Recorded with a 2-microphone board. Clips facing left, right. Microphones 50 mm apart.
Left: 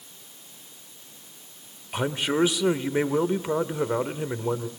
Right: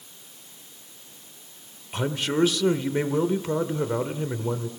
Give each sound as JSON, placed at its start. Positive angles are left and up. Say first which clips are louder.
{"t": 1.9, "sound": "a man speaking", "louder": "left 1 dB", "side_deg": 15, "distance_m": 0.9}